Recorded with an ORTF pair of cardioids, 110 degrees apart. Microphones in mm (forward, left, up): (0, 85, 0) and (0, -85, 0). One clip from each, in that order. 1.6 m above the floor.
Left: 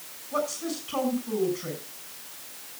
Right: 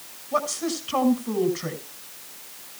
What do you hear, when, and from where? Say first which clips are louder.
0.3 s a woman speaking: right 4 dB; 40° right, 6.5 m